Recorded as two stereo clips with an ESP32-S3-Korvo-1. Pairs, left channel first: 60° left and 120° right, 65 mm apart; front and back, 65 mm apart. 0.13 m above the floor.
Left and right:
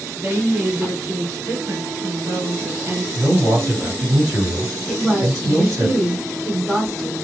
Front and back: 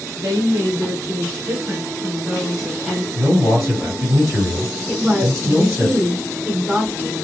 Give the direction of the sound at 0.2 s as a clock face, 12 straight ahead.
5 o'clock.